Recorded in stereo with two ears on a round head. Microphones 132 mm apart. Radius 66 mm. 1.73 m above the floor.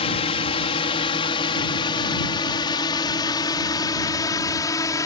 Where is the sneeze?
I don't hear a sneeze.